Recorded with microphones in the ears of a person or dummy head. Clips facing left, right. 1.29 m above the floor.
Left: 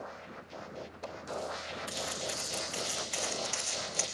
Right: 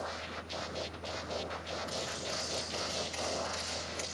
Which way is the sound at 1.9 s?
55° left (ahead or behind).